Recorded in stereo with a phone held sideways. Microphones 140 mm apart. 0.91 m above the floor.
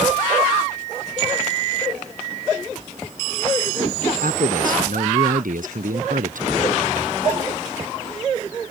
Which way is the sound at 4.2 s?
80° right.